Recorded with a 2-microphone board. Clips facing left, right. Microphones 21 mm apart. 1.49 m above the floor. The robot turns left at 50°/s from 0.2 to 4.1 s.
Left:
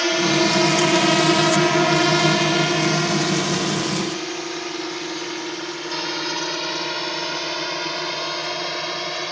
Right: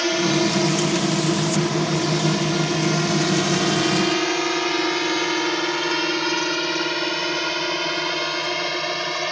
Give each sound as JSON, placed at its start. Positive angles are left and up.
{"t": 0.0, "sound": "a drone", "side_deg": 15}